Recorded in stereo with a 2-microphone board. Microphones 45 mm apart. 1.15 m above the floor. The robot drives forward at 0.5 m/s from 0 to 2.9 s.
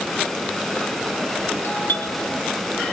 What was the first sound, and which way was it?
A doorbell, 70° left (ahead or behind).